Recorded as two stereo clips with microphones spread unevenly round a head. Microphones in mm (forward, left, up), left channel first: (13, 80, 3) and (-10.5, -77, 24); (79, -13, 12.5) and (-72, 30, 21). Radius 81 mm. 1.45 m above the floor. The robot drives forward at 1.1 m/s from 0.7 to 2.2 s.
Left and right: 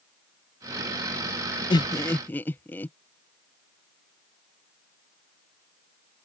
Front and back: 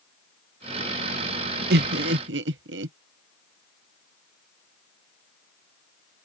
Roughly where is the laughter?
Behind left.